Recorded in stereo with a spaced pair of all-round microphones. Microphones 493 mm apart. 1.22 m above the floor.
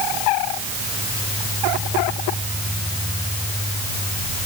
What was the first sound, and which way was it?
Only background noise.